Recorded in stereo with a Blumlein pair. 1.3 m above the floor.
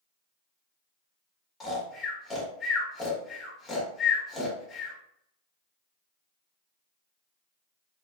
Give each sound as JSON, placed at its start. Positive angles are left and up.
{"t": 1.6, "sound": "snoring", "azimuth_deg": 20, "distance_m": 1.1}